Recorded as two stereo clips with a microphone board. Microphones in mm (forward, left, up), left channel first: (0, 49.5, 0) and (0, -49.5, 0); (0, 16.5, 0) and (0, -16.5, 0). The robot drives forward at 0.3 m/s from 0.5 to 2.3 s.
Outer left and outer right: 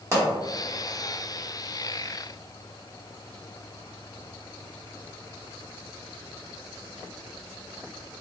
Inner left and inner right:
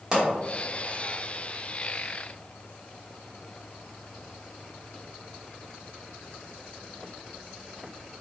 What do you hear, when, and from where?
0.1 s a pop: 30° right (ahead or behind), 1.1 m